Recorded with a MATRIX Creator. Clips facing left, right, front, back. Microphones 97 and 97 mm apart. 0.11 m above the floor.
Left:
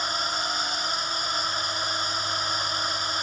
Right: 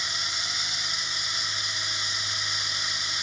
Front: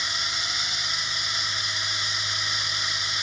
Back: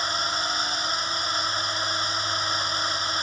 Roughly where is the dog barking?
I don't hear a dog barking.